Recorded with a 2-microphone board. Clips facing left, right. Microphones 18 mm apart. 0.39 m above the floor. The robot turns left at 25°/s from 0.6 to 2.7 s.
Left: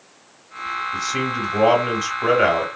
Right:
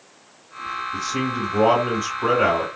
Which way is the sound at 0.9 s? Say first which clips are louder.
Even; 90° left.